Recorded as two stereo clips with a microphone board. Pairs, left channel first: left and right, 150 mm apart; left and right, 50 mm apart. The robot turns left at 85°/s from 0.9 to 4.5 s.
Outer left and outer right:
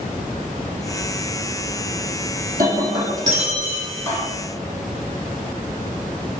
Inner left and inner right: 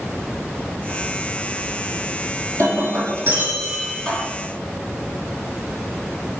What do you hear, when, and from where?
2.6 s breaking glass: 70° right, 4 m; by 4.2 s 150° left, 4 m